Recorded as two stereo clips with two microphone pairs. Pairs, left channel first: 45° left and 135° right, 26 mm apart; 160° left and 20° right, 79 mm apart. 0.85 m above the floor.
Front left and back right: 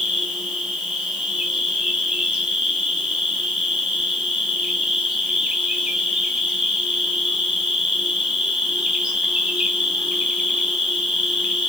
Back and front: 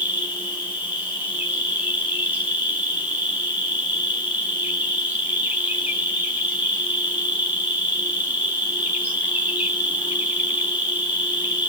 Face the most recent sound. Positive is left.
turn(degrees=-90)